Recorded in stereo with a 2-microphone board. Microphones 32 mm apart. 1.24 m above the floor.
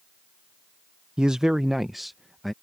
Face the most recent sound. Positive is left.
turn(degrees=5)  # may be behind; listen again after turning